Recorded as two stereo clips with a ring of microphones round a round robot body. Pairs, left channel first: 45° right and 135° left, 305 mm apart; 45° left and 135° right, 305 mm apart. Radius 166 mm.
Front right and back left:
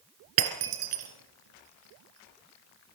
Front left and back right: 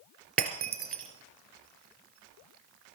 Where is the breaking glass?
165° left, 3 m.